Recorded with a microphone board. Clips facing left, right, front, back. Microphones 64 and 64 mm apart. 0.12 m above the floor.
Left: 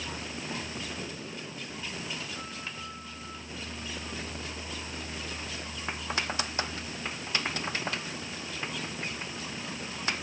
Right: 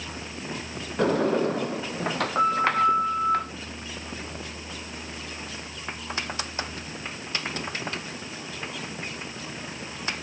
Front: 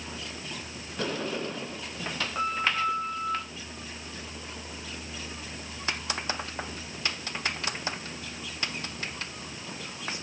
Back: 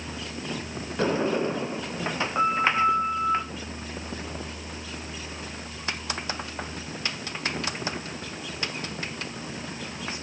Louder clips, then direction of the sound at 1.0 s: Right 18 dB, back 7 dB; 115° right.